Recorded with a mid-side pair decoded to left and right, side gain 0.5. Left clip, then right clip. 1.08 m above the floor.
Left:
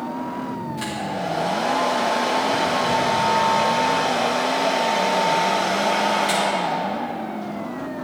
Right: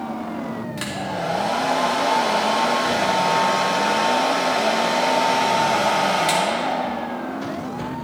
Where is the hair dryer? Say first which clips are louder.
Right 1 dB; 50° right, 3 m.